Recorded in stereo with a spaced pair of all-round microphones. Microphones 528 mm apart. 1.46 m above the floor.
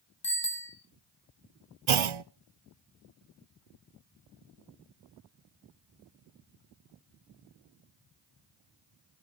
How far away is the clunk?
About 0.6 m.